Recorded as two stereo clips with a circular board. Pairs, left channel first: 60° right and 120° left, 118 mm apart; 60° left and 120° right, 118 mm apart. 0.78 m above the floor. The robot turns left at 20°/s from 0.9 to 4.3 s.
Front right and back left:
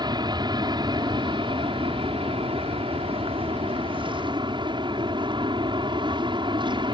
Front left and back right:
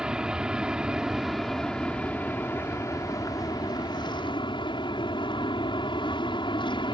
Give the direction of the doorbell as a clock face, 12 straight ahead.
I don't hear a doorbell.